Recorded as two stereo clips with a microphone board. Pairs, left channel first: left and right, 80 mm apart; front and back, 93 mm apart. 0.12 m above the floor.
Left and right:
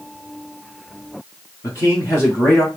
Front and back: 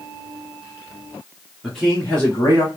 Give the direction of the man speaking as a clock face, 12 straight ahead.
9 o'clock.